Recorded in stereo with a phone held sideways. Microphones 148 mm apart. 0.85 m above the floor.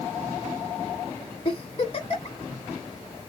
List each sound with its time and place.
1.4 s a giggle: 40° left (ahead or behind), 1.6 m